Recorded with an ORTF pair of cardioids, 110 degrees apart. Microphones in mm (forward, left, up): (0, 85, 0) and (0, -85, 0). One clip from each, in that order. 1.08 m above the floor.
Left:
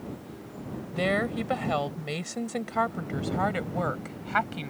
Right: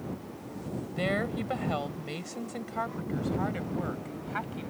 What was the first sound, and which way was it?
A woman speaking, 25° left.